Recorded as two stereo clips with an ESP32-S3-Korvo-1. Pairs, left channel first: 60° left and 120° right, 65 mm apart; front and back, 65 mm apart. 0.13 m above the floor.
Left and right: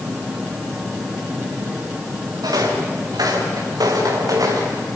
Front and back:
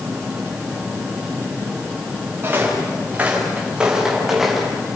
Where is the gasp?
No gasp in this recording.